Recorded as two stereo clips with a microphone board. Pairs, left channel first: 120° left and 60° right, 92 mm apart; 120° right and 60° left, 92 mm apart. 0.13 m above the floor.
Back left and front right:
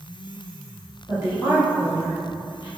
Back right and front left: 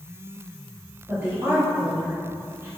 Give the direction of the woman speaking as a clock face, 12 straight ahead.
12 o'clock.